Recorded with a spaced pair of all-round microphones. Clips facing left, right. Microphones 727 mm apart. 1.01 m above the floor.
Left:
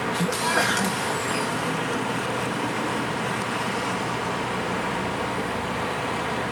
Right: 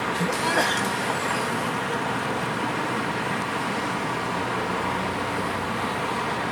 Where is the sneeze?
40° left (ahead or behind).